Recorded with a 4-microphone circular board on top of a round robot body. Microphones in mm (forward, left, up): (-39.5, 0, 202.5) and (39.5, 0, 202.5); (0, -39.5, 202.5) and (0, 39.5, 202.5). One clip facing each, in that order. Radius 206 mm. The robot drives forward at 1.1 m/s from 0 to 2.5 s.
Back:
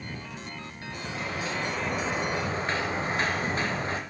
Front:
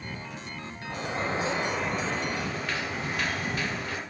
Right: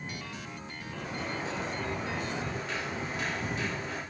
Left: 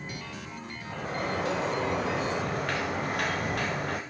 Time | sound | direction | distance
0.9 | a sliding door | 45° left | 1.6 m